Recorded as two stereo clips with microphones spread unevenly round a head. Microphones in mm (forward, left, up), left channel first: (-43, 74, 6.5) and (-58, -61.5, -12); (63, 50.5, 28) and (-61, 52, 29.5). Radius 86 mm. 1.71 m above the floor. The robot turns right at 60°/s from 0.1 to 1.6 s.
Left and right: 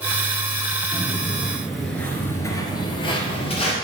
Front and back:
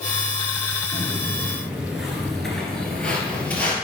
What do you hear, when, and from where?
0.9 s footsteps: 175° right, 1.8 m; by 3.7 s 75° left, 2.5 m